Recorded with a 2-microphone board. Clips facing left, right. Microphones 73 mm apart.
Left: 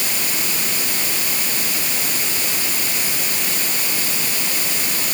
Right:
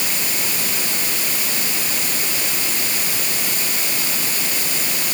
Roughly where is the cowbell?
I don't hear a cowbell.